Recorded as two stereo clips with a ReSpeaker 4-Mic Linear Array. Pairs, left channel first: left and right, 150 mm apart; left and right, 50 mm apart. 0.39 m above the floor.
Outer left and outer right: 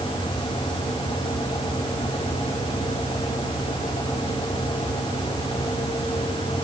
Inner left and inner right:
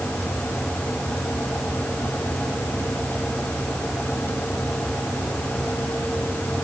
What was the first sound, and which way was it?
Only background noise.